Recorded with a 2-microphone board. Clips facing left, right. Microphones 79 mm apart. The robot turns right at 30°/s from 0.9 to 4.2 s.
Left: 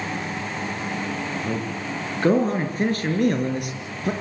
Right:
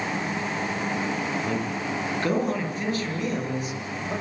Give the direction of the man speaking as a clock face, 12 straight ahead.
12 o'clock.